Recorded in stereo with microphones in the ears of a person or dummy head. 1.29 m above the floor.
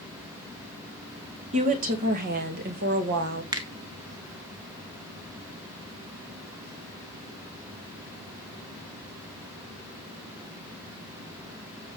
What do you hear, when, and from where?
1.5 s a woman speaking: 35° right (ahead or behind), 1.5 m; by 3.4 s 60° right (ahead or behind), 2 m
3.5 s a finger snap: 20° right (ahead or behind), 1.0 m